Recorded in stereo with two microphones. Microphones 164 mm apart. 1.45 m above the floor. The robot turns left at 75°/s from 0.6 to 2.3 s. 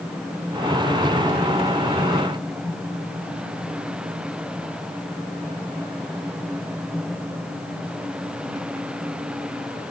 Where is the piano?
I don't hear a piano.